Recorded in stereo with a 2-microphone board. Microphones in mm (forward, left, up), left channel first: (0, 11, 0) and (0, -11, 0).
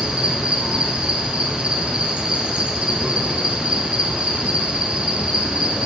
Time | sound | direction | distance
0.0 | an insect | 65° right (ahead or behind) | 1.1 m